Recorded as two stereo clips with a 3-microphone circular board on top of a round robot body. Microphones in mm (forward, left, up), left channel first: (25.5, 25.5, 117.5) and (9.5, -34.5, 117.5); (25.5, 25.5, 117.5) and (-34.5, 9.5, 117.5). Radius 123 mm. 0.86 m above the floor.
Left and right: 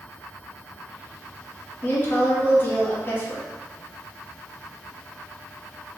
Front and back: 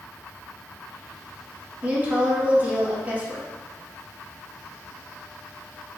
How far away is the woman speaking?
About 1.4 m.